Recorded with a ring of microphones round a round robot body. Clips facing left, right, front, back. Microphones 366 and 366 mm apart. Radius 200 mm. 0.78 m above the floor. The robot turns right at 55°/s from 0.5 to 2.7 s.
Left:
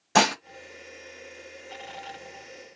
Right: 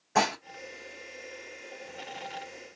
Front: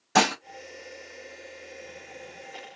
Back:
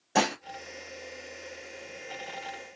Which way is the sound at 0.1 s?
65° left.